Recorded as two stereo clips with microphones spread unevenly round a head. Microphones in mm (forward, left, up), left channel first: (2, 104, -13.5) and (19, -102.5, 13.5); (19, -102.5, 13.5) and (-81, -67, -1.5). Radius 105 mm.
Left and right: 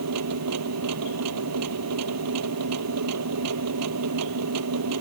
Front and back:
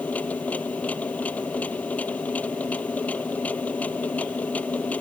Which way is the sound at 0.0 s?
95° right.